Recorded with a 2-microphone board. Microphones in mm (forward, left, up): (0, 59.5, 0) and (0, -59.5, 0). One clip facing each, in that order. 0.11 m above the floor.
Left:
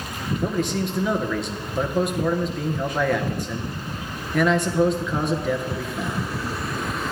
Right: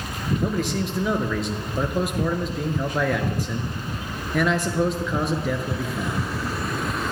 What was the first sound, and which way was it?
A man speaking, centre (ahead or behind).